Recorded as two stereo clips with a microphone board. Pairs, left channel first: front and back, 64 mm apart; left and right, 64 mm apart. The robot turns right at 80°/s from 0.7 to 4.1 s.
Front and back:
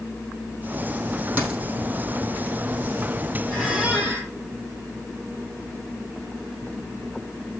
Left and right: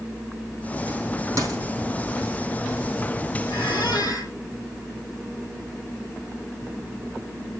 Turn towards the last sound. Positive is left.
turn(degrees=120)